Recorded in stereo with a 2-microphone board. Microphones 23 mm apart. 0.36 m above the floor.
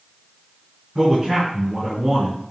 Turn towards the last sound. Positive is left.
turn(degrees=0)  # may be behind; listen again after turning